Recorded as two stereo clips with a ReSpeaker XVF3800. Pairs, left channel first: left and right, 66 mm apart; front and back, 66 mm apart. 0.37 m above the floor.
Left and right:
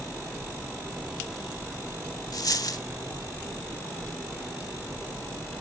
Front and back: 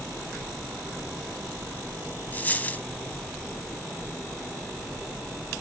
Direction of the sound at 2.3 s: 60° left.